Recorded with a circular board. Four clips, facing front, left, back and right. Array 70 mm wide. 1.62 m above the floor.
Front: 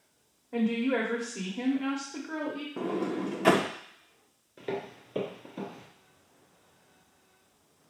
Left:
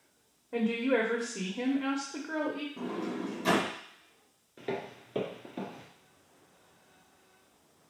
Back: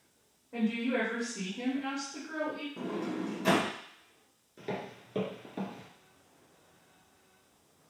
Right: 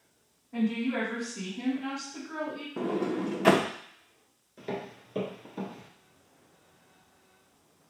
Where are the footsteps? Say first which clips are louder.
Even, front 3 dB; 45° left, 1.6 m; by 5.9 s 145° left, 1.8 m.